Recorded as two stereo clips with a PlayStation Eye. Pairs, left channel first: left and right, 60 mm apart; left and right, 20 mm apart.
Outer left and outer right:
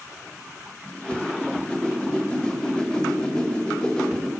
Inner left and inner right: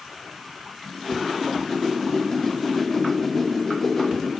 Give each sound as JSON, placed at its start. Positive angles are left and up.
{"t": 0.8, "sound": "a whoosh", "side_deg": 15, "distance_m": 2.0}